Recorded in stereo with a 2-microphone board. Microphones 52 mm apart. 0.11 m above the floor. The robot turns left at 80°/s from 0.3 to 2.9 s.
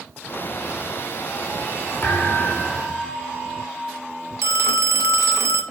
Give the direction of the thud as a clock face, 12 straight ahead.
11 o'clock.